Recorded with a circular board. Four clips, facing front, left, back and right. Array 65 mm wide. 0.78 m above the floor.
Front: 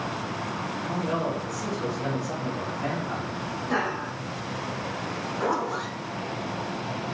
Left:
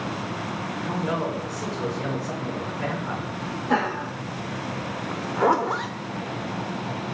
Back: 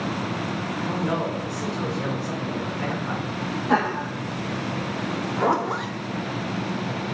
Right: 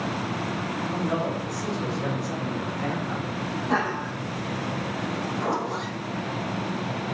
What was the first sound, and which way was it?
A man speaking, 140° left.